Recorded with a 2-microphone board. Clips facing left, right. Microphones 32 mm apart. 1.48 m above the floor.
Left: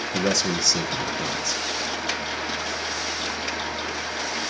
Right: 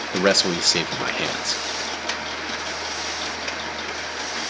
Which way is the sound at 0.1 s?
55° right (ahead or behind).